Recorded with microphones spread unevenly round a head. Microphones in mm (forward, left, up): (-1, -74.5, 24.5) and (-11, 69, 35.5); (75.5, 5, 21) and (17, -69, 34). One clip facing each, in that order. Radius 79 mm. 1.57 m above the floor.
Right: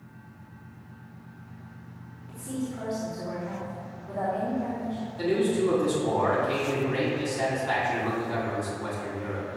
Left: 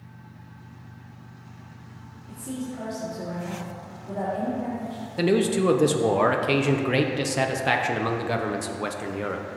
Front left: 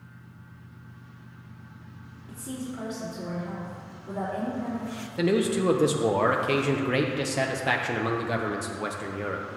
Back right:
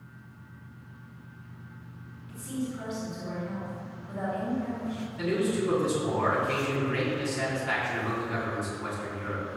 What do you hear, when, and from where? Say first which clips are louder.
2.3 s a woman speaking: even, back right 2 dB; 35° left, 3.5 m
5.2 s a man speaking: left 3 dB, front left 4 dB; 80° left, 1.0 m